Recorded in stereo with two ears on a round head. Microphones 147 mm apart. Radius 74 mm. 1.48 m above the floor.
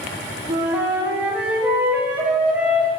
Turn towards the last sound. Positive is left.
turn(degrees=-10)  # may be behind; listen again after turning